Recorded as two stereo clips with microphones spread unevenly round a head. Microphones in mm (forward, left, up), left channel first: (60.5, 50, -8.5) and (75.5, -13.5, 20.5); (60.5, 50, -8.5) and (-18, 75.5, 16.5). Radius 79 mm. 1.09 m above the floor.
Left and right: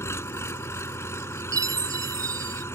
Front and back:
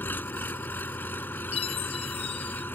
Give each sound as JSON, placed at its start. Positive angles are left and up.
{"t": 0.0, "sound": "an engine running", "azimuth_deg": 50}
{"t": 1.5, "sound": "a chime", "azimuth_deg": -50}